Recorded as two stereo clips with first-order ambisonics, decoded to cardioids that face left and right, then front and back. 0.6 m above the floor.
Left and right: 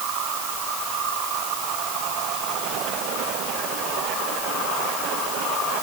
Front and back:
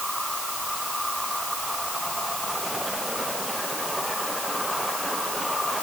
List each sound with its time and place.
Only background noise.